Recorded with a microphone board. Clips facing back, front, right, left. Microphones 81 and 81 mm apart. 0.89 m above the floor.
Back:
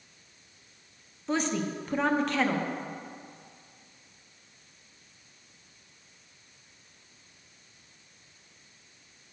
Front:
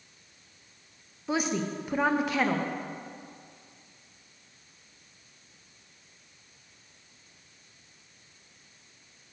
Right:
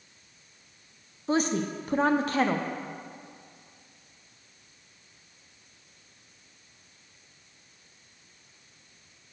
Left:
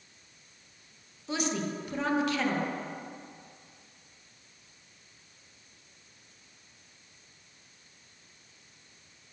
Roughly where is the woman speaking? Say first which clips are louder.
Even, right 5 dB; right.